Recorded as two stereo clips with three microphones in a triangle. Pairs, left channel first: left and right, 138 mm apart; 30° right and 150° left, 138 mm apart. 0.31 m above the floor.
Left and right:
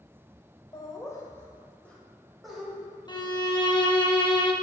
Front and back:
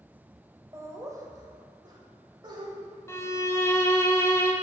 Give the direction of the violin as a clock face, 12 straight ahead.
11 o'clock.